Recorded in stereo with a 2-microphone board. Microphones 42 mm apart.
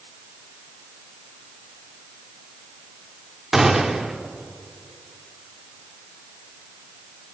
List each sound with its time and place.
3.5 s a gunshot: 10° right (ahead or behind), 1.1 m